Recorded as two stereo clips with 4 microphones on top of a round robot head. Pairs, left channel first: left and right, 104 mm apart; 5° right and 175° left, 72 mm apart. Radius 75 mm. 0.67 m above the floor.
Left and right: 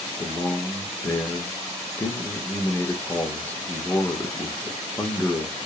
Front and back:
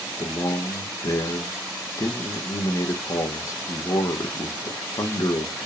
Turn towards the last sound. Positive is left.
turn(degrees=20)